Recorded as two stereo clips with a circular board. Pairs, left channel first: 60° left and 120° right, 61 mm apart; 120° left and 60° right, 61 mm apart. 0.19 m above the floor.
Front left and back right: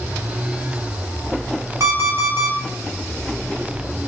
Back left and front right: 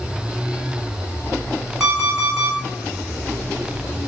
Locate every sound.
1.8 s an alarm clock: 140° right, 1.2 m